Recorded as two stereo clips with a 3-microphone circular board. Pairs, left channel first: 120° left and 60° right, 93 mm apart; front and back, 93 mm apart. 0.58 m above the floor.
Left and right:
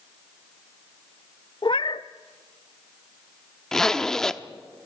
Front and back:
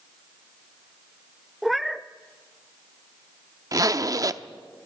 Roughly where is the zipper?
Behind.